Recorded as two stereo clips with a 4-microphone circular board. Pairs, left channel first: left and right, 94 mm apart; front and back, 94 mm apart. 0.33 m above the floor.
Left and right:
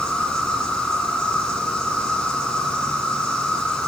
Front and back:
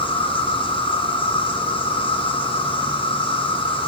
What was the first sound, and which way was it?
An insect, 5° left.